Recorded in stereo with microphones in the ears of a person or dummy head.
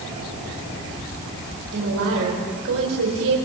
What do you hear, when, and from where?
1.7 s a woman speaking: 80° right, 4 m